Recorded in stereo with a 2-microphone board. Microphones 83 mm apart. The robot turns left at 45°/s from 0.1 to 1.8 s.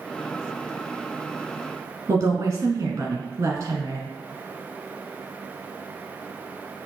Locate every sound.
2.1 s a woman speaking: 35° right (ahead or behind), 1.3 m